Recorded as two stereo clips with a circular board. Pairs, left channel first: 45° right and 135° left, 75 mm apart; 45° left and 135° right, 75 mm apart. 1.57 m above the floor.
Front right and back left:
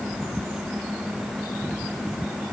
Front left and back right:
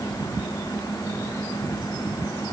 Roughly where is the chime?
I don't hear a chime.